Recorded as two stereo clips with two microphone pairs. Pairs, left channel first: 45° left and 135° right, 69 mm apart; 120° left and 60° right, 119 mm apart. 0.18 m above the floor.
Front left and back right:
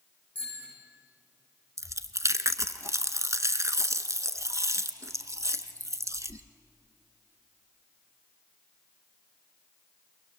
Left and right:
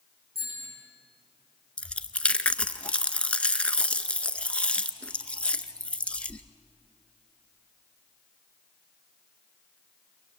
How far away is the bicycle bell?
About 8 m.